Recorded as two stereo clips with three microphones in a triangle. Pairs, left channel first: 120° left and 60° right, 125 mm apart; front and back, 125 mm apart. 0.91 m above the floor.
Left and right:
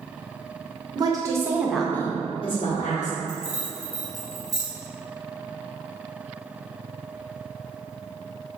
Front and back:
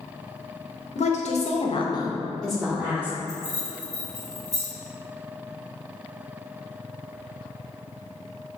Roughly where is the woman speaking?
Ahead.